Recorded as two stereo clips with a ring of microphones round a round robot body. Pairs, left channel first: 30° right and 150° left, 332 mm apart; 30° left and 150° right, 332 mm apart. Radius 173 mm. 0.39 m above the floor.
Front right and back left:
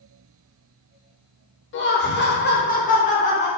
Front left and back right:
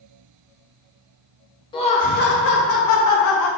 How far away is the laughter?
About 1.0 m.